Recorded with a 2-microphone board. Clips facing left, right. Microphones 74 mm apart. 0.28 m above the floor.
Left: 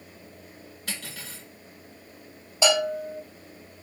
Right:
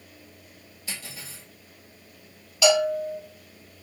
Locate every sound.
0.9 s cutlery clinking: 55° left (ahead or behind), 1.9 m
2.6 s a bell: 30° left (ahead or behind), 1.3 m